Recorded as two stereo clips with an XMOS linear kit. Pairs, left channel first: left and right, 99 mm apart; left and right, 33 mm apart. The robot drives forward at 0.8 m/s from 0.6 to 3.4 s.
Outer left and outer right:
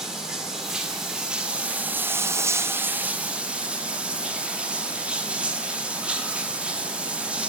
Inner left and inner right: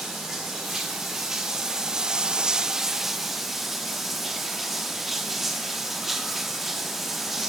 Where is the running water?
5° right (ahead or behind), 1.5 m; by 7.5 s 10° right (ahead or behind), 0.9 m.